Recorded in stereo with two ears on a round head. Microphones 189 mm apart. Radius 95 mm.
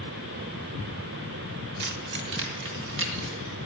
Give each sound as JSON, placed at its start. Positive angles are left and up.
{"t": 1.8, "sound": "keys jangling", "side_deg": -50, "distance_m": 1.2}